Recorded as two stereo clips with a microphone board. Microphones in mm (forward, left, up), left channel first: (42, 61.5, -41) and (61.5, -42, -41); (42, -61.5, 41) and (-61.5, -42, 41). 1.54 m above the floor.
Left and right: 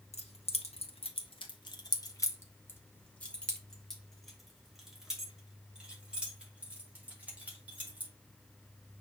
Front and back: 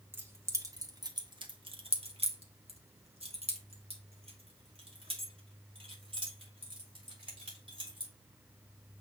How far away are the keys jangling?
About 1.6 m.